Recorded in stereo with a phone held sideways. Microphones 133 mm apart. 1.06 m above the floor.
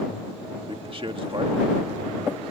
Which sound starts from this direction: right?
A man speaking, at 0.7 s.